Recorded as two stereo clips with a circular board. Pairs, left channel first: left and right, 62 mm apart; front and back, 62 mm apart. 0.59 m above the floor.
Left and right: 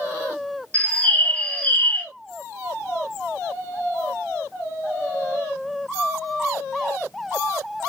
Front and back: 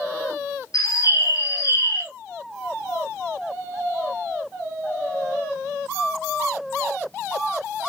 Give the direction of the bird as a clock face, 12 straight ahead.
11 o'clock.